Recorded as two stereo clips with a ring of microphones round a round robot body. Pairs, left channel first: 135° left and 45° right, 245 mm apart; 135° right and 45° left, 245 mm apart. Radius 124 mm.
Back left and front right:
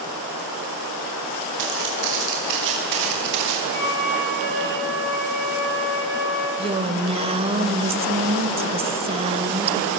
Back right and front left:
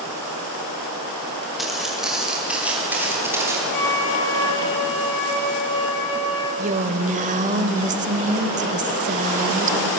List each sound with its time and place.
1.6 s footsteps: 45° right, 9 m; by 3.6 s 35° right, 6.5 m
3.7 s a flute: straight behind, 7.5 m
6.6 s a woman speaking: 10° left, 1.2 m